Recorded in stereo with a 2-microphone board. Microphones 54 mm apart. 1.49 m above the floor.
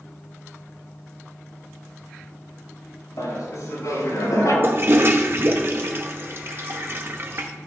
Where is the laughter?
80° left, 4 m; by 4.5 s 85° left, 5.5 m.